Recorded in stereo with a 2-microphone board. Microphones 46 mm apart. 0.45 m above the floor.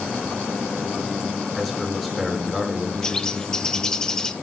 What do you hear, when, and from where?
1.6 s a man speaking: 5° left (ahead or behind), 4.5 m
3.0 s a bird: 15° left (ahead or behind), 0.7 m